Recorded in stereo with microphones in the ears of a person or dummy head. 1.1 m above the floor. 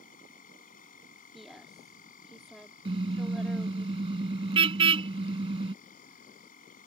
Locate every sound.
0.0 s an insect: 40° left (ahead or behind)
1.3 s a woman speaking: 5° left (ahead or behind)
2.9 s a car horn: 30° right (ahead or behind)